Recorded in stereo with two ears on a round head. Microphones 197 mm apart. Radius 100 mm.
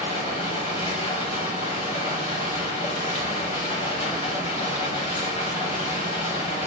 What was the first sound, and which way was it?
Running water, 30° left (ahead or behind).